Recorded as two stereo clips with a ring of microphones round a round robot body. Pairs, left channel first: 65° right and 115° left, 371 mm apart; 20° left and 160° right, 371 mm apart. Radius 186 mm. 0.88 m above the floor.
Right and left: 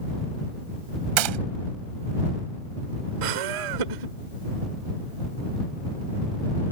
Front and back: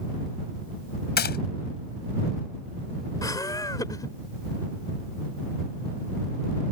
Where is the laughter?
105° left.